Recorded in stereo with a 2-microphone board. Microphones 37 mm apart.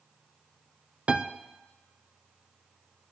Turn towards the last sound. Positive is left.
turn(degrees=-30)  # may be behind; listen again after turning